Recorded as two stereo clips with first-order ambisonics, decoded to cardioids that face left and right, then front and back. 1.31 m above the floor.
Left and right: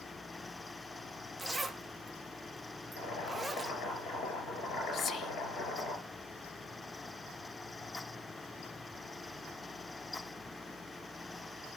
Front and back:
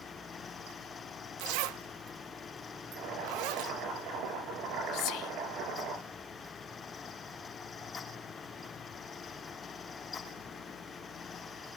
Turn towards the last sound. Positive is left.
turn(degrees=30)